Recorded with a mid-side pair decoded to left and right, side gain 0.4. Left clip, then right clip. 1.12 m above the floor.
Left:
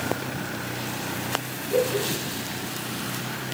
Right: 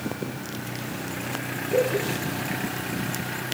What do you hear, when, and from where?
1.7 s laughter: straight ahead, 6 m